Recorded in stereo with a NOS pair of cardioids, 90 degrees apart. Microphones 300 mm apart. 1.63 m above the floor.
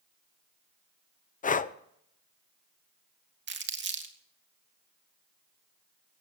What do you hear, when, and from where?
1.4 s breathing: 25° left, 0.8 m
3.5 s crumpling: 40° right, 2.5 m